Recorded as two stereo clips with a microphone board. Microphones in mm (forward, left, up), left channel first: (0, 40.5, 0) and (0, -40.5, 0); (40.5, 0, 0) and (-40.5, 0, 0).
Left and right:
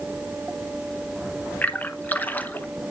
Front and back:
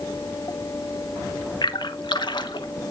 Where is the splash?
25° left, 0.8 m.